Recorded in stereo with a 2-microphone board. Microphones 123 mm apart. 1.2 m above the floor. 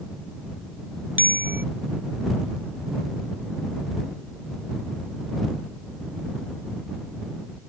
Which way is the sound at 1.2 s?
15° right (ahead or behind).